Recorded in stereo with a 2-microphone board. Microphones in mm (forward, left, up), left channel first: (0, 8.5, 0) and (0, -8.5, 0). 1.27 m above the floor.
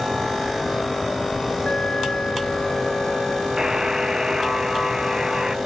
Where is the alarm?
80° left.